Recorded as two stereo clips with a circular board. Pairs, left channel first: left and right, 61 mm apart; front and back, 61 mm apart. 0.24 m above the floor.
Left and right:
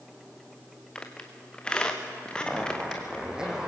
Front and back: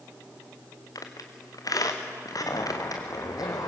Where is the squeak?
15° left, 3 m.